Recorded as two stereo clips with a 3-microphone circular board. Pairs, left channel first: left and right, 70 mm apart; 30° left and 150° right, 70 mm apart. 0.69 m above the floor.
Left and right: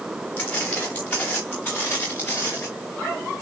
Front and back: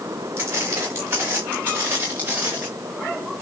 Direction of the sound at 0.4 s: 155° left.